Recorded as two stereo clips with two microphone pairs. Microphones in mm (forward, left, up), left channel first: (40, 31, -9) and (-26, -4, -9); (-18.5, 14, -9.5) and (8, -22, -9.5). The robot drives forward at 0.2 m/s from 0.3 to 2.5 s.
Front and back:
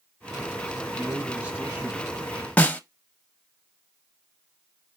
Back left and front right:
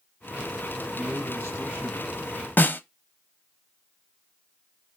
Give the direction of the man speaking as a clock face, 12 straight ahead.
7 o'clock.